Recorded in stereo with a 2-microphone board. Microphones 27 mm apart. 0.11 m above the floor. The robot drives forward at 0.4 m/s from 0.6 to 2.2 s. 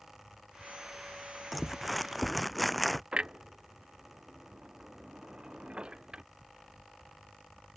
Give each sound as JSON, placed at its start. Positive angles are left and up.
{"t": 1.5, "sound": "crumpling", "side_deg": 0}
{"t": 3.1, "sound": "a clunk", "side_deg": -35}